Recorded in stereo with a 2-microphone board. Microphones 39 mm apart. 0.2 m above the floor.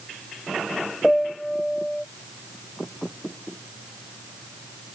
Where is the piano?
5° left (ahead or behind).